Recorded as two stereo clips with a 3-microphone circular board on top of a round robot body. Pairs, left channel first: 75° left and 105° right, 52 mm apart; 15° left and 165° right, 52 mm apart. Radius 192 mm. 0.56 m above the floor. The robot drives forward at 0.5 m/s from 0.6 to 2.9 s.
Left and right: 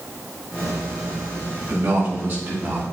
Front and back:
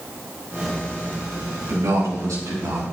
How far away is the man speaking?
About 4.5 m.